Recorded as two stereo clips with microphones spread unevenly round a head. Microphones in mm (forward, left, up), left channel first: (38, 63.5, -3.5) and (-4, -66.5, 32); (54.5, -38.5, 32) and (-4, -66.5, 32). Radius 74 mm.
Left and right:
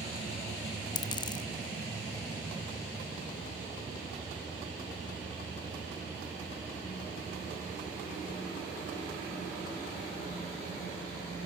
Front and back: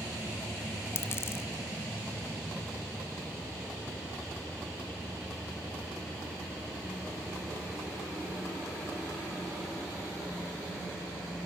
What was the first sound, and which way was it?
A dropped coin, 10° left.